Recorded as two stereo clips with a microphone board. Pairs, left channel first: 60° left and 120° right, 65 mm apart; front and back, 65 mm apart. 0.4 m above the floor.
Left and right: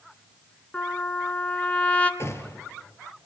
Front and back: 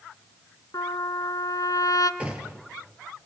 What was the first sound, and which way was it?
A trumpet, 10° right.